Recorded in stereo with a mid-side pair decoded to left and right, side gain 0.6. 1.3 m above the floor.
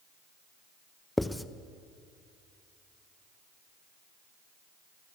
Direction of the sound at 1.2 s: 10° left.